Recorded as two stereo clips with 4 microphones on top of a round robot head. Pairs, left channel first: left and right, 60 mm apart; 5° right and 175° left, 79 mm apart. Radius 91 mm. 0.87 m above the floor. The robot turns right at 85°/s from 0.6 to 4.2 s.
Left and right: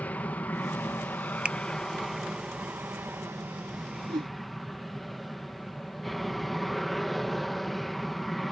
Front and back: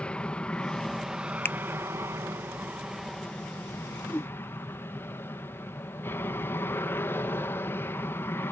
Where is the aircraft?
55° left; by 8.5 s 5° left.